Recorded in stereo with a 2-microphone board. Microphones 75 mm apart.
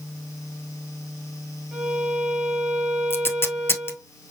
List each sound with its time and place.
1.7 s a violin: 15° right (ahead or behind), 1.8 m
3.1 s tape being pulled: 35° left (ahead or behind), 1.0 m